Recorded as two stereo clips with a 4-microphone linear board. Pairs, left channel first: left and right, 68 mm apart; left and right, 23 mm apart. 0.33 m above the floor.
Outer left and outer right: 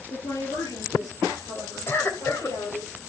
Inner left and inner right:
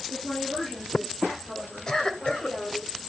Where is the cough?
35° left (ahead or behind), 1.7 m.